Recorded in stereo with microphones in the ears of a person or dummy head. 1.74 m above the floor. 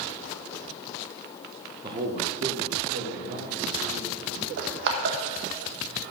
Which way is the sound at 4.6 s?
60° right (ahead or behind).